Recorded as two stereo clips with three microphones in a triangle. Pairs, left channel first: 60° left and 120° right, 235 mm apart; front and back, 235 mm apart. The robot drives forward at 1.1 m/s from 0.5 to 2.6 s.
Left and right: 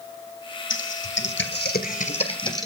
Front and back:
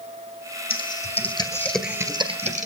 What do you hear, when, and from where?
0.7 s typing on a keyboard: 40° left, 1.8 m; by 2.7 s 130° left, 1.7 m